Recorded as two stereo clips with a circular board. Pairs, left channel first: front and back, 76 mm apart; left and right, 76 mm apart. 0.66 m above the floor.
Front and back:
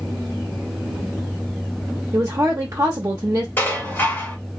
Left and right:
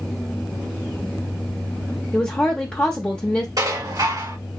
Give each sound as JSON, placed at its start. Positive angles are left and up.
{"t": 2.1, "sound": "a woman speaking", "azimuth_deg": 155, "distance_m": 0.7}
{"t": 3.6, "sound": "dishes clattering", "azimuth_deg": -60, "distance_m": 1.8}